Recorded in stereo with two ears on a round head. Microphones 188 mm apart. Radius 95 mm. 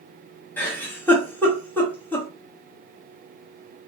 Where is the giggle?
10° left (ahead or behind), 1.1 m.